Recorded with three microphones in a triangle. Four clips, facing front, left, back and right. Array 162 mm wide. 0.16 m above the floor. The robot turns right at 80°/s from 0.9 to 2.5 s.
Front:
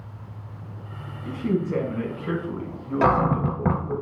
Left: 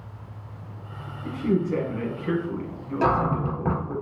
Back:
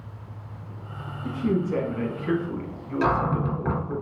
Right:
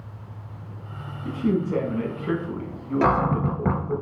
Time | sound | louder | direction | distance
1.2 | a man speaking | even, even | 135° right | 1.2 m
3.0 | a cupboard door | right 1 dB, front 3 dB | 20° right | 0.7 m